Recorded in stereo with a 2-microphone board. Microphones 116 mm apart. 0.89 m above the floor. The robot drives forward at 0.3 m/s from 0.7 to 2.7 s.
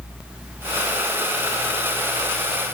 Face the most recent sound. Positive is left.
No sound to turn to.